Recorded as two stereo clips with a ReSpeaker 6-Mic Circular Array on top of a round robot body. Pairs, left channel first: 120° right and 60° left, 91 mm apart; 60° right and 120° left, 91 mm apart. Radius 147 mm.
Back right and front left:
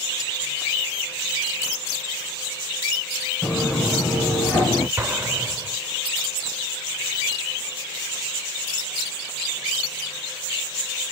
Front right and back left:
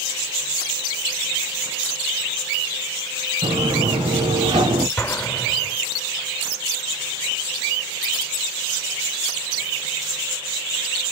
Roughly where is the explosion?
Ahead.